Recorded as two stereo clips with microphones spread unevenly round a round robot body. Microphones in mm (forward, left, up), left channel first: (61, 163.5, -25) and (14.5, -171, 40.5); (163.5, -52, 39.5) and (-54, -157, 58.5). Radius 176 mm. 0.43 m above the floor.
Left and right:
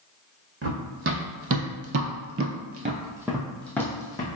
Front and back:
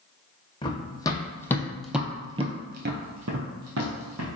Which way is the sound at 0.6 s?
50° right.